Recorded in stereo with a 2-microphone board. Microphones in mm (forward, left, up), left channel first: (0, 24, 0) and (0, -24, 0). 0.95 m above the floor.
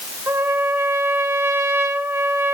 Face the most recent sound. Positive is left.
turn(degrees=-65)  # may be behind; listen again after turning